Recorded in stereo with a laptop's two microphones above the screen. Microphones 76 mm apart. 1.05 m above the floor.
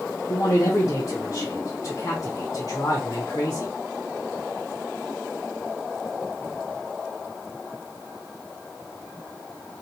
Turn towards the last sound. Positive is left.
turn(degrees=50)  # may be behind; listen again after turning